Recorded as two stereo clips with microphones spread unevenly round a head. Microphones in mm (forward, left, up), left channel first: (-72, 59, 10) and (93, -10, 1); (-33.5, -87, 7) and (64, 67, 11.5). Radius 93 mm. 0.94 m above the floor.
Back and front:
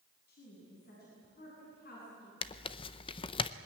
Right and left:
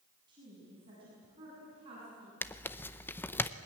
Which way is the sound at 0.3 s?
125° left.